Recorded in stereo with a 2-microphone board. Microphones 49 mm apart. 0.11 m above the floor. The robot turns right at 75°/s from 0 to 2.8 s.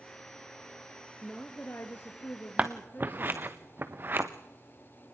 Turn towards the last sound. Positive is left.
turn(degrees=-45)  # may be behind; listen again after turning